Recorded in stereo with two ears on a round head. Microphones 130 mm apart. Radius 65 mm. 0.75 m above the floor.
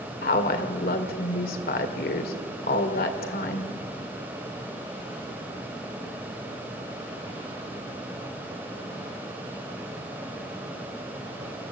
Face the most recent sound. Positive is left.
turn(degrees=70)  # may be behind; listen again after turning